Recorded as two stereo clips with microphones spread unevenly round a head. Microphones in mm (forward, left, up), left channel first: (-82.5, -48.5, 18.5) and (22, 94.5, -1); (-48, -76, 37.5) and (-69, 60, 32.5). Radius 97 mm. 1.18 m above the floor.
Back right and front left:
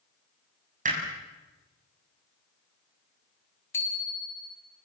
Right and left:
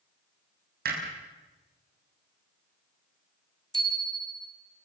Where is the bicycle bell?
155° left, 4.5 m.